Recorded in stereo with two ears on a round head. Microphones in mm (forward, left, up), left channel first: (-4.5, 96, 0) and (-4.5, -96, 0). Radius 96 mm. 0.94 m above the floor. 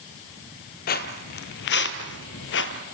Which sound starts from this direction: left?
Footsteps, at 0.9 s.